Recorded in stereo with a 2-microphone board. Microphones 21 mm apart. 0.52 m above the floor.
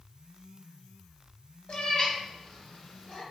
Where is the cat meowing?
55° left (ahead or behind), 0.8 m; by 3.2 s 40° left (ahead or behind), 1.5 m.